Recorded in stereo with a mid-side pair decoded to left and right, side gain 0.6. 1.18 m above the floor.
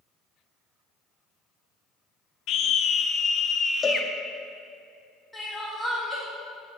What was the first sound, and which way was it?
A scream, 55° left.